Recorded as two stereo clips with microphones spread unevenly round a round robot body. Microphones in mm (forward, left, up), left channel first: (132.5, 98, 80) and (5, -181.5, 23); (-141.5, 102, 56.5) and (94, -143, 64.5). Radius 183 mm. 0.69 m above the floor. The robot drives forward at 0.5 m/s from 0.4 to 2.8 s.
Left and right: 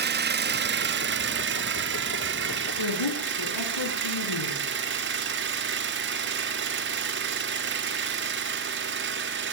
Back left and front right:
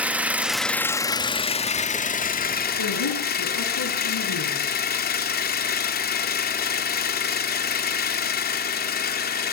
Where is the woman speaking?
90° left, 8 m.